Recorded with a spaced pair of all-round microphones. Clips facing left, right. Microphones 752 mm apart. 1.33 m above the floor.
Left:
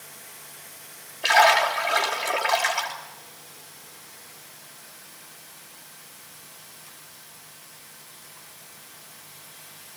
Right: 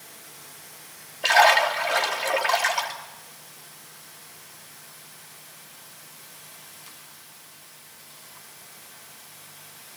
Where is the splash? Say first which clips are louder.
Even; 5° right (ahead or behind), 3 m.